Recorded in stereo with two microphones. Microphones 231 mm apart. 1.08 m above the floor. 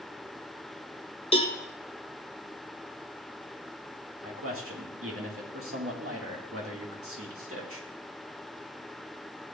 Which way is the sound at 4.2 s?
70° right (ahead or behind).